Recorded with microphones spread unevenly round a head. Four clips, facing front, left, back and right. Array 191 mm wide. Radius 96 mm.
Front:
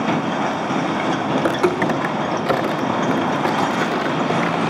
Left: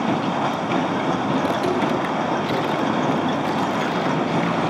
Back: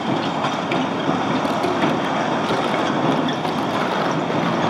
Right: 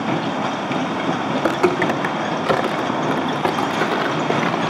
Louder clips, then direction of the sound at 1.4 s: Right 2 dB, front 2 dB; 55° right.